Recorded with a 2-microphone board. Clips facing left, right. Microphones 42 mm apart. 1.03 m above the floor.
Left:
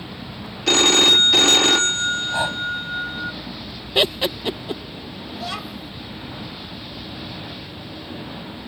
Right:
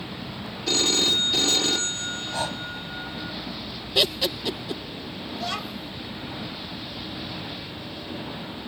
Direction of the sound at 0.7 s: 70° left (ahead or behind).